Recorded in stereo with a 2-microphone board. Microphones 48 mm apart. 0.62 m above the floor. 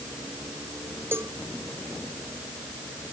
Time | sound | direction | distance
1.1 | a cowbell | 55° right (ahead or behind) | ?